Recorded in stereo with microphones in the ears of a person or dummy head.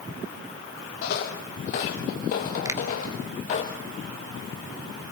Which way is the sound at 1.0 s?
50° left (ahead or behind).